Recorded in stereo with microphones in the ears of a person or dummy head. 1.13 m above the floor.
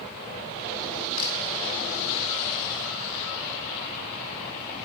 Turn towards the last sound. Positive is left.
turn(degrees=55)  # may be behind; listen again after turning